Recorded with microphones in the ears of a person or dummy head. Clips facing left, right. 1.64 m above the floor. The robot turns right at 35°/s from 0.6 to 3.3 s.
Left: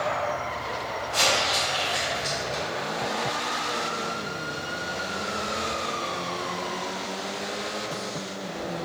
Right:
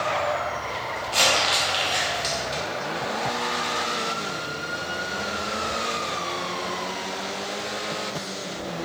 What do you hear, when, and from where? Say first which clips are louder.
1.1 s crumpling: right 2 dB; 25° right (ahead or behind), 0.6 m; by 2.6 s 15° right (ahead or behind), 0.6 m